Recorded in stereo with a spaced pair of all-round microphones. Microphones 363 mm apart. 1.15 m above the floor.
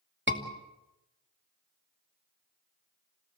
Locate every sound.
0.3 s a scream: 30° right (ahead or behind), 2.5 m